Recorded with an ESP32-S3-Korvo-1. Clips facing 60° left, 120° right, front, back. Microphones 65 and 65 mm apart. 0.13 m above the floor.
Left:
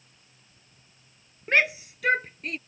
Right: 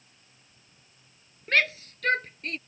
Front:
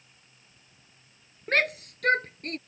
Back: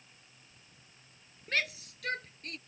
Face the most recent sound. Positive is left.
turn(degrees=-25)